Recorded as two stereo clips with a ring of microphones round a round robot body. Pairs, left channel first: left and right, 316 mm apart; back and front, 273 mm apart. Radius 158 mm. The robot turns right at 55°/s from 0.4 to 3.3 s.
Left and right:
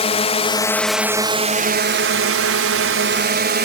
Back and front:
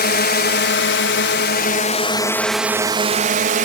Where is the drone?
150° left; by 3.6 s 50° right.